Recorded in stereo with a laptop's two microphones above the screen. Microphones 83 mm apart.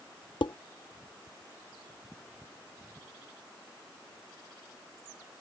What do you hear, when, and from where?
0.4 s dishes clattering: 70° left (ahead or behind)